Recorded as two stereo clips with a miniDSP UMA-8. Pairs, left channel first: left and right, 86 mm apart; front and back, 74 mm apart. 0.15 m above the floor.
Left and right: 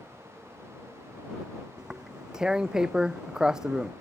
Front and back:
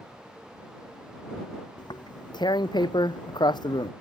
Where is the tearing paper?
10° right.